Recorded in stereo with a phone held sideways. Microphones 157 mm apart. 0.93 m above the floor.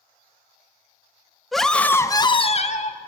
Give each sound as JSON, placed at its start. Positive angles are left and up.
{"t": 1.5, "sound": "a scream", "side_deg": 0, "distance_m": 1.3}